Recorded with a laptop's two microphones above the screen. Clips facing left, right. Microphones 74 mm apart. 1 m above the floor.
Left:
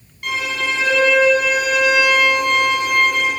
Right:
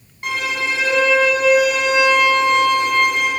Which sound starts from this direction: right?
A violin, at 0.2 s.